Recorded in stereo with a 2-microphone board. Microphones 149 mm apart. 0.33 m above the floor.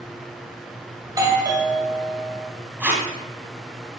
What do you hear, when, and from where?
1.0 s a doorbell: 25° right (ahead or behind), 1.9 m
2.8 s tape being pulled: 10° right (ahead or behind), 2.5 m